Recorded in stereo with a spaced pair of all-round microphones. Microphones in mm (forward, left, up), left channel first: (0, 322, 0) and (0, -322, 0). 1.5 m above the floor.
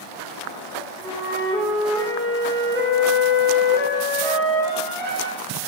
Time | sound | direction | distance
1.0 | a flute | 5° left (ahead or behind) | 2.0 m